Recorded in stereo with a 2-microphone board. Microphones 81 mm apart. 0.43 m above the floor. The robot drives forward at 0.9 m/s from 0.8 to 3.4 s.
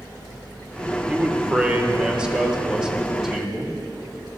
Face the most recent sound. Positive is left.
turn(degrees=-5)  # may be behind; listen again after turning